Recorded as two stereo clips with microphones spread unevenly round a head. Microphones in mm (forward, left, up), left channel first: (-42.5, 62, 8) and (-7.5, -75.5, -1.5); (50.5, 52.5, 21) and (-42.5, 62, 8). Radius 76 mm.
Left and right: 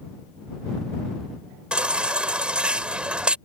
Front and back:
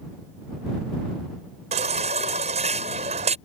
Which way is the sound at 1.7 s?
160° right.